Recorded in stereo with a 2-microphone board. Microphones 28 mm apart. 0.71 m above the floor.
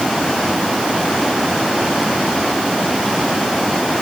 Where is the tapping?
No tapping in this recording.